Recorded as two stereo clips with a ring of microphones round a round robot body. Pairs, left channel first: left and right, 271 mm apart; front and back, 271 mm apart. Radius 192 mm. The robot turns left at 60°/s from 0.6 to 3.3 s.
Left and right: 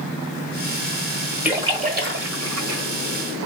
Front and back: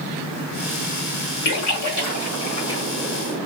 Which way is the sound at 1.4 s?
5° right.